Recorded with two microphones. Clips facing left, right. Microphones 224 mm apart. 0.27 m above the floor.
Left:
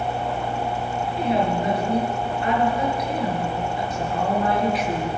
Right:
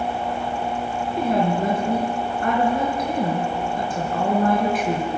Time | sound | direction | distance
1.1 | a woman speaking | 50° right (ahead or behind) | 5 m